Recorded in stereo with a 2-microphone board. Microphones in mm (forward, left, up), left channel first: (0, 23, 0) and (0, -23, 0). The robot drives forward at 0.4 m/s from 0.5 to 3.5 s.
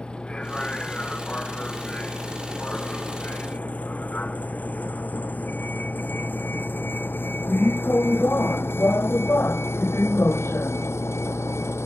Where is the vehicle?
20° left (ahead or behind); by 11.9 s 80° left.